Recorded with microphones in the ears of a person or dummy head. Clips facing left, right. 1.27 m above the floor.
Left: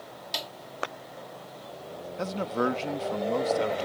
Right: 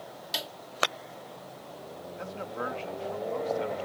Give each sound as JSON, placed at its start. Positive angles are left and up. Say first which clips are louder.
{"t": 0.3, "sound": "a snare drum", "louder": "even", "side_deg": -5}
{"t": 2.2, "sound": "a man speaking", "louder": "left 9 dB", "side_deg": 60}